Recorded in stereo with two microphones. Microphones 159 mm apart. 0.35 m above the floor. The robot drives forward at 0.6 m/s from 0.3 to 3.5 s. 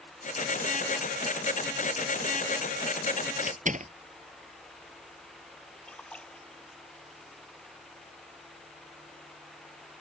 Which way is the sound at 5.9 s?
5° left (ahead or behind).